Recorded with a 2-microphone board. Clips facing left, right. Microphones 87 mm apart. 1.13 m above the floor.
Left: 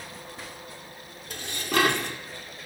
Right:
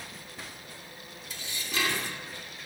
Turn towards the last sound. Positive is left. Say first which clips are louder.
# left 9 dB
turn(degrees=60)  # may be behind; listen again after turning